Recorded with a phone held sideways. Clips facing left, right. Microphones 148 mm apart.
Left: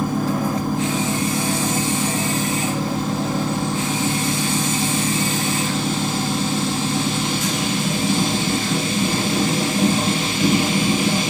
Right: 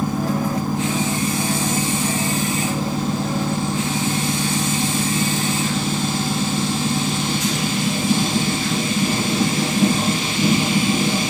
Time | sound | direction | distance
0.0 | a machine running | 50° left (ahead or behind) | 1.5 m